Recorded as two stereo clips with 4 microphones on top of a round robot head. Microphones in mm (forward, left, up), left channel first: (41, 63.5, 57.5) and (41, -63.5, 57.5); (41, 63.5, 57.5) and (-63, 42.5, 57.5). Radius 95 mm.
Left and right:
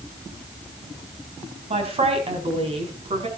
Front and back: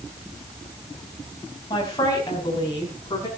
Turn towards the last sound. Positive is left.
turn(degrees=-50)